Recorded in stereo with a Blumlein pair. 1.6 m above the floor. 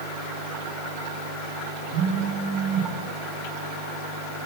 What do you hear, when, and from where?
1.9 s a phone buzzing: 45° right, 8 m